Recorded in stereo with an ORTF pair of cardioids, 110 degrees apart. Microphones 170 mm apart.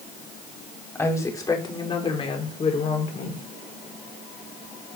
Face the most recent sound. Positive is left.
turn(degrees=50)